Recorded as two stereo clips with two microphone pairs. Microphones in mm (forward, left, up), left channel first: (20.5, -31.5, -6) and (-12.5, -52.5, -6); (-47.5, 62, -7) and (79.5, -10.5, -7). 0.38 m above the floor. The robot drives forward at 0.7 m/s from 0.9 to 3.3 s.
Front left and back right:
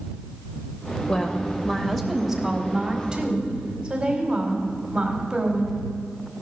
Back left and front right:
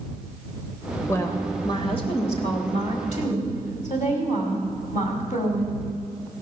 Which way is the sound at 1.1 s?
90° left.